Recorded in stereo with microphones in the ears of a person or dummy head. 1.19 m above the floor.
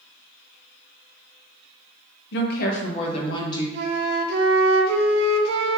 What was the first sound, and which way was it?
A woman speaking, 65° left (ahead or behind).